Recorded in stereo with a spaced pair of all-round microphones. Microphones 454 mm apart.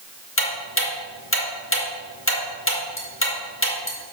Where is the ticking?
25° left (ahead or behind), 1.8 m.